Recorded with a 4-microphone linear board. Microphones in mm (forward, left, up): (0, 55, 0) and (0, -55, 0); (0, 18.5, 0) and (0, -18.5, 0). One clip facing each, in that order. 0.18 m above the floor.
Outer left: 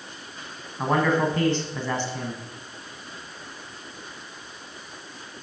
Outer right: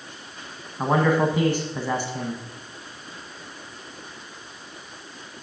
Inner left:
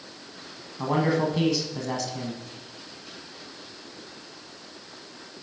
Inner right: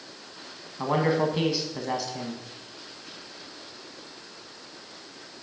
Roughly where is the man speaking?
Centre.